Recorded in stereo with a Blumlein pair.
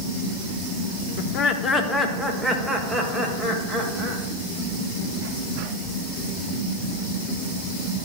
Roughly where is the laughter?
Ahead left.